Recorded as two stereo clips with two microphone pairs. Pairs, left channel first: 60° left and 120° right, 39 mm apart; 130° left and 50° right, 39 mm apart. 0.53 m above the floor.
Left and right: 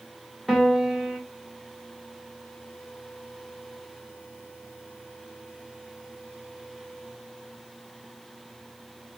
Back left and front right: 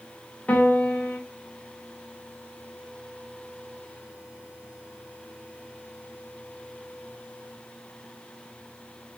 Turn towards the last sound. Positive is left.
turn(degrees=150)